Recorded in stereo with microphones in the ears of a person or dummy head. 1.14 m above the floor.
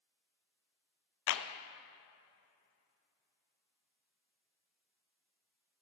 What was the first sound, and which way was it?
A clap, 65° left (ahead or behind).